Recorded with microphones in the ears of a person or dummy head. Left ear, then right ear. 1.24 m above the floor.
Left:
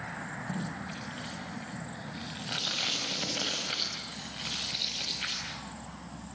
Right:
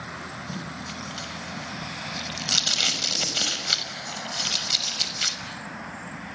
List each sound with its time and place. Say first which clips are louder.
0.5 s tape being pulled: right 3 dB; 85° right, 6 m